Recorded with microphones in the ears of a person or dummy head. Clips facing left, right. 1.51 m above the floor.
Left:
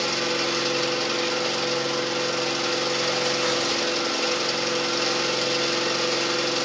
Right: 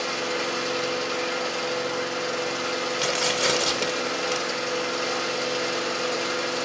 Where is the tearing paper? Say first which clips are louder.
Left 1 dB; 45° right (ahead or behind), 0.9 m.